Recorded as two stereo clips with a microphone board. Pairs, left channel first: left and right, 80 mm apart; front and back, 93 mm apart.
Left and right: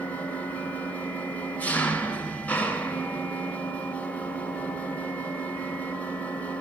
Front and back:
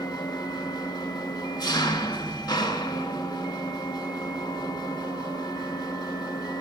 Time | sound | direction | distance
0.0 | an engine running | 25° left | 1.5 m